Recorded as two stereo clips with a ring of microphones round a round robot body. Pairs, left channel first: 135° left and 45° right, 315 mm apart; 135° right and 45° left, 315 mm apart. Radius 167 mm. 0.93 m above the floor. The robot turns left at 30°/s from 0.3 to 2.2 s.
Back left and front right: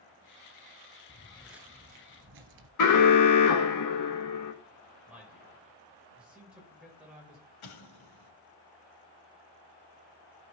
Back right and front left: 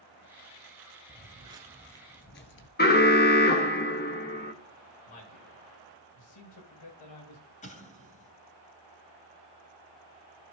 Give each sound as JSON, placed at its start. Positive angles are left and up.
{"t": 1.1, "sound": "footsteps", "azimuth_deg": 100, "distance_m": 1.0}
{"t": 2.8, "sound": "an alarm", "azimuth_deg": 165, "distance_m": 1.5}
{"t": 5.1, "sound": "a man speaking", "azimuth_deg": -130, "distance_m": 5.0}
{"t": 7.6, "sound": "an explosion", "azimuth_deg": 155, "distance_m": 3.0}